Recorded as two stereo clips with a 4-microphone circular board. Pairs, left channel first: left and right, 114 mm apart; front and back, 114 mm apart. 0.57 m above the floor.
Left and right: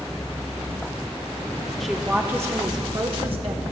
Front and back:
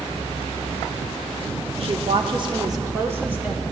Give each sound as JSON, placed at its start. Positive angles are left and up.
{"t": 1.8, "sound": "a woman speaking", "azimuth_deg": 180, "distance_m": 1.0}